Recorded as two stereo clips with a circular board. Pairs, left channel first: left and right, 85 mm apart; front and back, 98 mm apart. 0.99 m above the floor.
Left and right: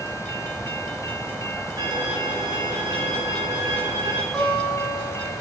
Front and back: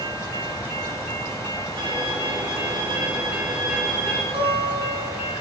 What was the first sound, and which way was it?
A violin, 140° right.